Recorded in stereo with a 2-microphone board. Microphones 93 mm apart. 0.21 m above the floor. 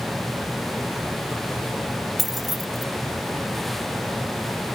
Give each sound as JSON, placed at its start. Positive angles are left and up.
{"t": 2.2, "sound": "keys jangling", "side_deg": 0, "distance_m": 0.8}